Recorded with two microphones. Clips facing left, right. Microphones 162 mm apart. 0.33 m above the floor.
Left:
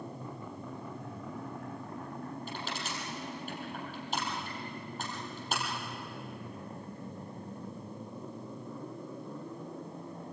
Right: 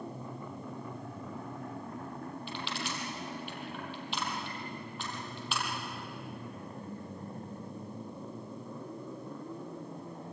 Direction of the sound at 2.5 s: 45° left (ahead or behind).